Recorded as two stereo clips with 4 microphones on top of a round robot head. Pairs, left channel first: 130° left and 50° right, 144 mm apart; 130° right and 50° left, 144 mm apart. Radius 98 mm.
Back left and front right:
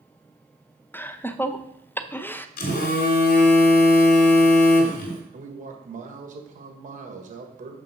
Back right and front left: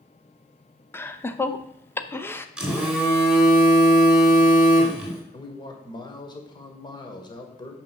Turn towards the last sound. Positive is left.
turn(degrees=-75)